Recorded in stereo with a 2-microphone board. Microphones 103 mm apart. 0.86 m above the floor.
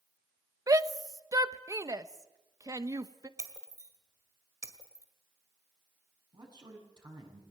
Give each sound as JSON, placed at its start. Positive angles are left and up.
{"t": 0.7, "sound": "a shout", "side_deg": -30, "distance_m": 1.0}
{"t": 3.4, "sound": "breaking glass", "side_deg": -25, "distance_m": 1.8}
{"t": 6.3, "sound": "a man speaking", "side_deg": -40, "distance_m": 7.0}